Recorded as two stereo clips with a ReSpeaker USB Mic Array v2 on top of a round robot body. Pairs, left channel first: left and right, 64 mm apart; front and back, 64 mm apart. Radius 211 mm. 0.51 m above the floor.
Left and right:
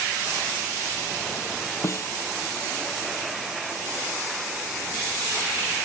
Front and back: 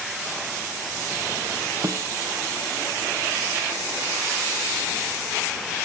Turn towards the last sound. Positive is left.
turn(degrees=140)